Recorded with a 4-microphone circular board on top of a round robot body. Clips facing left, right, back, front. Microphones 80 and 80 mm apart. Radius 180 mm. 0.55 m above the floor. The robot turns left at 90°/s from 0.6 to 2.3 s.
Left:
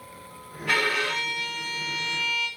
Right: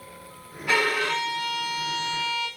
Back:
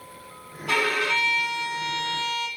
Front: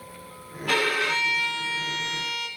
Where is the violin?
15° right, 2.5 m; by 2.5 s 165° right, 2.5 m.